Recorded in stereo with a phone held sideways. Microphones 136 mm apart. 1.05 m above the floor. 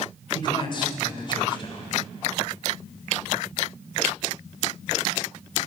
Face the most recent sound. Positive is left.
turn(degrees=35)  # may be behind; listen again after turning